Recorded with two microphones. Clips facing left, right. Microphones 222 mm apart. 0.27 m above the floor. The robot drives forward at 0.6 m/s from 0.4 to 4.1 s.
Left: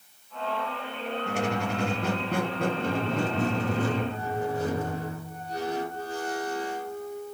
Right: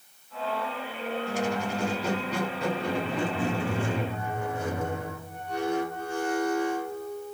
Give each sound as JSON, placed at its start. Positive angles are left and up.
{"t": 1.3, "sound": "a squeak", "side_deg": 65, "distance_m": 1.5}